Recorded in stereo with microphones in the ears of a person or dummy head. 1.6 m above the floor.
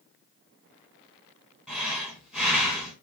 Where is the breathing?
5° right (ahead or behind), 1.3 m.